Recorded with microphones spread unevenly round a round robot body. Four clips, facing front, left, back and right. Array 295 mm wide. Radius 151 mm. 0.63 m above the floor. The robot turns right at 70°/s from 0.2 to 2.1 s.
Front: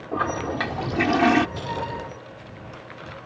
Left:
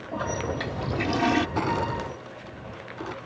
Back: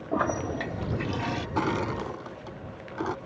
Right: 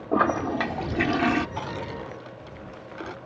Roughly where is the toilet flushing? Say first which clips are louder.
Right 7 dB, front 2 dB; right.